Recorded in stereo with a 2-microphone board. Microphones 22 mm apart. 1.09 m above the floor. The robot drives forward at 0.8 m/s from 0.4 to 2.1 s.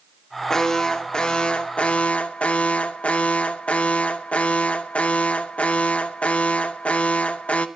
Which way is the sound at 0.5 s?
25° left (ahead or behind).